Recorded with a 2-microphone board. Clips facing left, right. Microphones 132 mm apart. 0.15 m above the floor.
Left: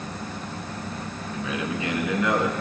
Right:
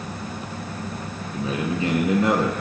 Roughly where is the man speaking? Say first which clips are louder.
Right 4 dB; right.